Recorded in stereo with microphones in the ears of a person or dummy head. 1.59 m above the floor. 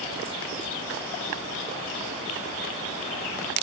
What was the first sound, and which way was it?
Only background noise.